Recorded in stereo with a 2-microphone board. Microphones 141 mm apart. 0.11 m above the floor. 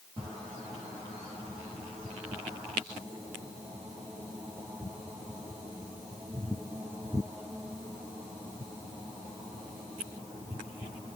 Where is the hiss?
I don't hear a hiss.